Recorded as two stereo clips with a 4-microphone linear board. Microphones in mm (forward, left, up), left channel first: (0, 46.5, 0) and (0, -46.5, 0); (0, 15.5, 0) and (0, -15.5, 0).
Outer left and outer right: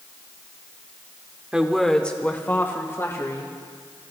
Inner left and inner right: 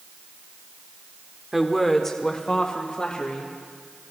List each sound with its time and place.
1.5 s a woman speaking: 10° right (ahead or behind), 1.1 m; by 3.6 s 35° left (ahead or behind), 3 m